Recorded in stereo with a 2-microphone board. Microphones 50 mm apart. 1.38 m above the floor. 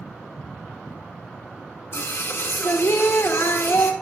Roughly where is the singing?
Left.